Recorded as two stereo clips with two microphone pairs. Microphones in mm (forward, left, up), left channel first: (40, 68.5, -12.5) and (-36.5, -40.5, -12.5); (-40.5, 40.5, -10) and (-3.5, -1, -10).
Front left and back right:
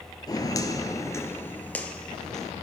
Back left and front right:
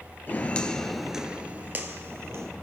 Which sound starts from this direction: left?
Footsteps, at 0.3 s.